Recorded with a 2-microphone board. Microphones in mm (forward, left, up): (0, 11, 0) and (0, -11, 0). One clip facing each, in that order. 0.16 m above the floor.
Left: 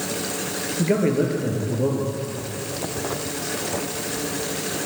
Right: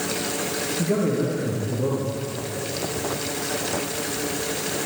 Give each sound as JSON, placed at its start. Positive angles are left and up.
{"t": 0.8, "sound": "a man speaking", "side_deg": 30, "distance_m": 3.0}